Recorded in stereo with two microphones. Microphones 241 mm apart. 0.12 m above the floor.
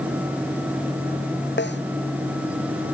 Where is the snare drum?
45° left (ahead or behind).